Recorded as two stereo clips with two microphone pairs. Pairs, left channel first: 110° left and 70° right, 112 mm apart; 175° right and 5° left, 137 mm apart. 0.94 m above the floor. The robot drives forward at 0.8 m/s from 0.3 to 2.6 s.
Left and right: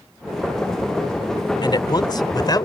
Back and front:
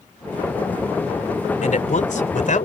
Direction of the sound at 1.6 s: 160° left.